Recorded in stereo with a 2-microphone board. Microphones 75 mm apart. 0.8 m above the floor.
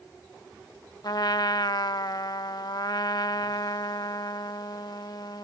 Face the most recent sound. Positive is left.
turn(degrees=55)  # may be behind; listen again after turning